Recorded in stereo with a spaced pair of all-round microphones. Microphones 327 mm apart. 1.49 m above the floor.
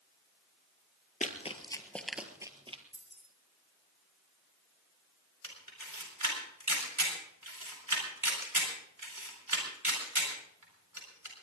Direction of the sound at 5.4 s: 85° right.